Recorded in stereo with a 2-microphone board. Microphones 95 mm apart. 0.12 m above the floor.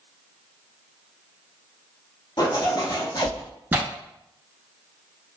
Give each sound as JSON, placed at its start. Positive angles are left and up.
{"t": 2.4, "sound": "a zipper", "side_deg": 45, "distance_m": 0.7}
{"t": 3.7, "sound": "tearing paper", "side_deg": -20, "distance_m": 0.7}